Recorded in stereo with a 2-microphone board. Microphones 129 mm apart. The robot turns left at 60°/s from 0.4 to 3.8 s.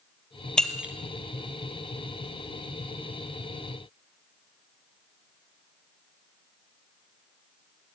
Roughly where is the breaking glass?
Centre.